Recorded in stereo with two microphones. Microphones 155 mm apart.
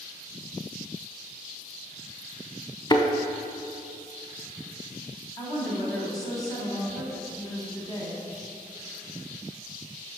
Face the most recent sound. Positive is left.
turn(degrees=25)  # may be behind; listen again after turning